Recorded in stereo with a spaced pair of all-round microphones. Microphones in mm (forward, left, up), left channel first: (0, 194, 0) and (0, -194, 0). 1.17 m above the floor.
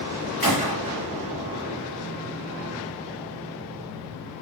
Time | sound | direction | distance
0.4 | a gunshot | 65° left (ahead or behind) | 2.5 m